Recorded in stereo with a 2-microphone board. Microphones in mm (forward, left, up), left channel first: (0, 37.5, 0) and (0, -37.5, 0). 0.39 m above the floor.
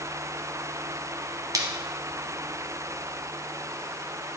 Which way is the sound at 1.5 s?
55° right (ahead or behind).